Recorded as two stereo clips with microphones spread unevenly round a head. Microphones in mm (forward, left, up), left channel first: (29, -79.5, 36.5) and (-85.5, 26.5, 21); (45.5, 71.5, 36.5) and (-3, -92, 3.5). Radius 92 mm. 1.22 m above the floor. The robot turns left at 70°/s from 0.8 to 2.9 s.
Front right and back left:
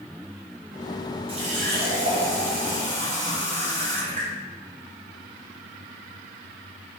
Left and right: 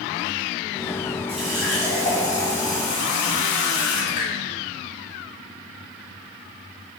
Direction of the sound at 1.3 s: 165° right.